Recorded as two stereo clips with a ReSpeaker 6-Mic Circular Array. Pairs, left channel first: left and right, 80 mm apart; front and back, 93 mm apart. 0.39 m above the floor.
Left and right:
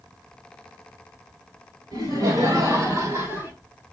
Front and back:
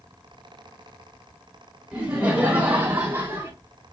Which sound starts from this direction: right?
Laughter, at 1.9 s.